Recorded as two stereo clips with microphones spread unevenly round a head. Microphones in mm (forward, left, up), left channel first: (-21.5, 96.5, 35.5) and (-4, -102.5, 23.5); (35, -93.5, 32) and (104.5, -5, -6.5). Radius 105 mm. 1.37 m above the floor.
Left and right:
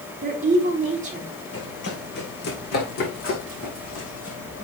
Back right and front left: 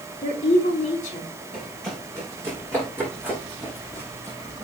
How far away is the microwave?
No microwave in this recording.